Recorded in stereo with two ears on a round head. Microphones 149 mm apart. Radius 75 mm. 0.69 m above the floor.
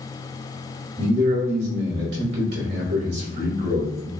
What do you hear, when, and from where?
1.0 s a man speaking: 70° right (ahead or behind), 2.5 m